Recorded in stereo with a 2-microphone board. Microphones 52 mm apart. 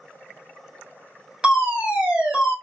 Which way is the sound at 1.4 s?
20° right (ahead or behind).